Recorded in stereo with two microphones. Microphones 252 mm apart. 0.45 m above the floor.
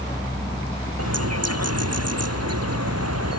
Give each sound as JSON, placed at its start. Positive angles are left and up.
{"t": 1.0, "sound": "a bird", "side_deg": -85}